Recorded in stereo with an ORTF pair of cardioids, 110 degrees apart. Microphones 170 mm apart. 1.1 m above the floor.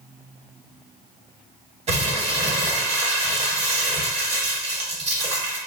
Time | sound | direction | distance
1.9 | crumpling | 35° right | 1.2 m